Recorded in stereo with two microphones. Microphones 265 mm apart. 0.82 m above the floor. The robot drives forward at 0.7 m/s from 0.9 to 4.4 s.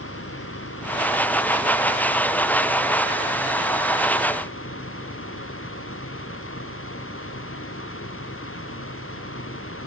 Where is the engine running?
65° left (ahead or behind); by 9.9 s 55° left (ahead or behind).